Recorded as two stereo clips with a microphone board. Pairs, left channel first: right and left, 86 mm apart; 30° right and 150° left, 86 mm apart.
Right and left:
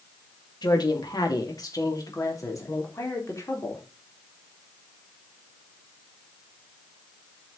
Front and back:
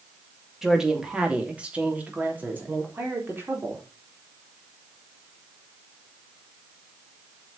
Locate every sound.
0.6 s a woman speaking: 125° right, 2.5 m; by 3.8 s 145° right, 4.5 m